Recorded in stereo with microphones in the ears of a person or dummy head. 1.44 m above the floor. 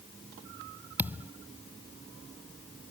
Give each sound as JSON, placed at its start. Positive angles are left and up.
{"t": 1.0, "sound": "a thud", "side_deg": -10}